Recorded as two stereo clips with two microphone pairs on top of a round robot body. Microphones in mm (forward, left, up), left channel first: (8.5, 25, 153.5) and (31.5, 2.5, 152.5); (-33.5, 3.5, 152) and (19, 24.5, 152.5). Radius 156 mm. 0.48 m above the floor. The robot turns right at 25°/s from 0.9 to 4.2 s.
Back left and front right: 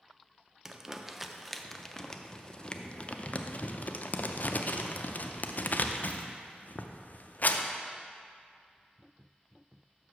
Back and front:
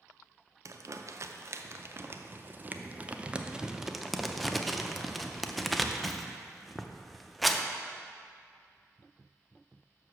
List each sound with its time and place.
0.7 s crumpling: 30° left, 0.6 m; by 7.7 s 115° left, 0.6 m